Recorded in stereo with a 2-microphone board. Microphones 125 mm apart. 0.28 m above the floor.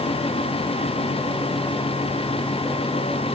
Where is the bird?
No bird in this recording.